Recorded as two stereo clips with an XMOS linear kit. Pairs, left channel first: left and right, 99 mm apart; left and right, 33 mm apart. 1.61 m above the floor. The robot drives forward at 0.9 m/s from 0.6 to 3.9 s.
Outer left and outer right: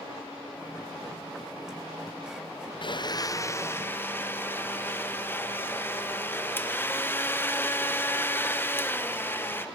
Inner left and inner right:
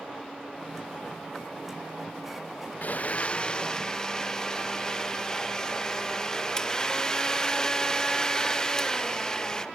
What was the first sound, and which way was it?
A blender, 55° left (ahead or behind).